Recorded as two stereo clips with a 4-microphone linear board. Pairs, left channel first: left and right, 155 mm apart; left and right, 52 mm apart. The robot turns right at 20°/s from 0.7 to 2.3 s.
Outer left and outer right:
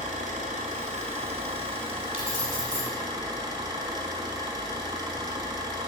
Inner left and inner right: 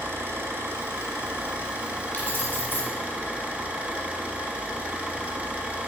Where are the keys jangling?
35° left (ahead or behind), 1.3 m; by 2.9 s 40° left (ahead or behind), 1.3 m.